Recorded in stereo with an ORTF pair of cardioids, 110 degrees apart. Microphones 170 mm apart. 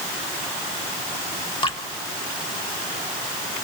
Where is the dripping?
30° left, 2.5 m.